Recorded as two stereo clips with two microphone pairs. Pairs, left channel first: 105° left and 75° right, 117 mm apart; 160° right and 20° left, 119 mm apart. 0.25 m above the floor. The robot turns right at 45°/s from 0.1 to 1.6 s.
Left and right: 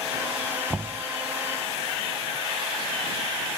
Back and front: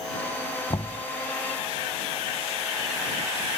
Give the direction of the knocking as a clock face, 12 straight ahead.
5 o'clock.